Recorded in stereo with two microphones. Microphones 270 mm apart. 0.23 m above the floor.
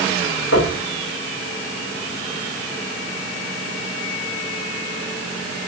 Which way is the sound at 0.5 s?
65° left (ahead or behind).